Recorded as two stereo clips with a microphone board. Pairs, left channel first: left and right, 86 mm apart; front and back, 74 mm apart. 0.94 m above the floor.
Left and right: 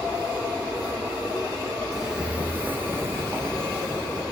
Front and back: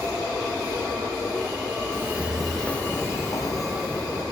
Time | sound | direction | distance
1.9 | footsteps | 175° right | 1.0 m